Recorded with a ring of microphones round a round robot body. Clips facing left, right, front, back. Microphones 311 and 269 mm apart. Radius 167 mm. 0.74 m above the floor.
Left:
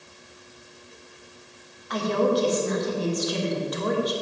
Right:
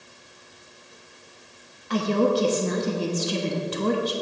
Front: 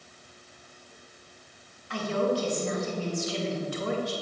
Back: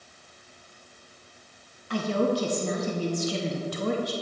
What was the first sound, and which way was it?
A woman speaking, 140° right.